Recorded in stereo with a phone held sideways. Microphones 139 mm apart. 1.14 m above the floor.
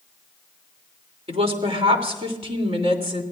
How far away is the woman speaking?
About 3 m.